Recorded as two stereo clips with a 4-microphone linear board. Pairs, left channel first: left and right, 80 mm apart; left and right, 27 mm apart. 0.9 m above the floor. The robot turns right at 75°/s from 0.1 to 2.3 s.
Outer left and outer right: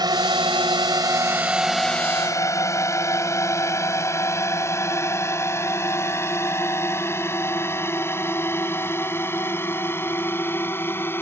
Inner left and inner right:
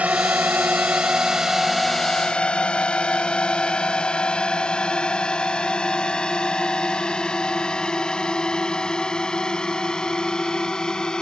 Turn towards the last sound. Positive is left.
turn(degrees=25)  # may be behind; listen again after turning